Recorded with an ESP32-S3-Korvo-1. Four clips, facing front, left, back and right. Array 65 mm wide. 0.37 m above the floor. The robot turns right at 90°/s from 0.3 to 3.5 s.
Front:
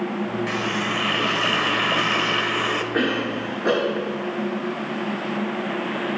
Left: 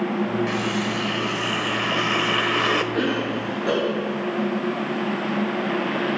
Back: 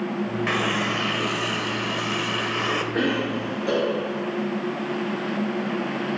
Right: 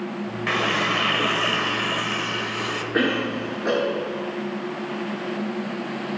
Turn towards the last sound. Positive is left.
turn(degrees=-15)